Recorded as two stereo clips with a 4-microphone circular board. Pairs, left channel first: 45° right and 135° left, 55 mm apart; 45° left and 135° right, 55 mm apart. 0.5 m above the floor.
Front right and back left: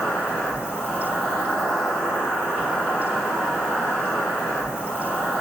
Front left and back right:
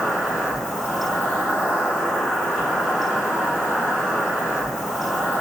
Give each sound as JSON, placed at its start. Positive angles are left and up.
{"t": 0.0, "sound": "an insect", "azimuth_deg": -60, "distance_m": 1.8}